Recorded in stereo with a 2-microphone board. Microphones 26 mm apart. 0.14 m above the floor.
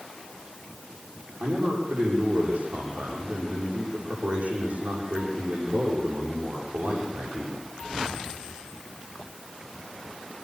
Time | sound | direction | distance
1.4 | a man speaking | 70° right (ahead or behind) | 9 m